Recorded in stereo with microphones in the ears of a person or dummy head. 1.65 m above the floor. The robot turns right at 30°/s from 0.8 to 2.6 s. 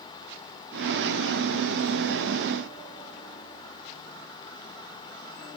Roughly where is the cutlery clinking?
I don't hear cutlery clinking.